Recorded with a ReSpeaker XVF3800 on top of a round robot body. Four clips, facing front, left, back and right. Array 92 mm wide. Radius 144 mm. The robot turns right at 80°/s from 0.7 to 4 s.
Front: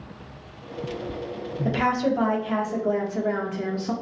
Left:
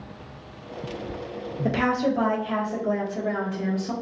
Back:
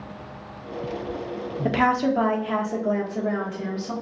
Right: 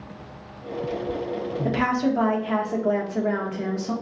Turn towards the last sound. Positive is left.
turn(degrees=-10)